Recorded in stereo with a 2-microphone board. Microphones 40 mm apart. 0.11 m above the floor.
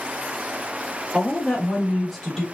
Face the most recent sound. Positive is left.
turn(degrees=0)  # may be behind; listen again after turning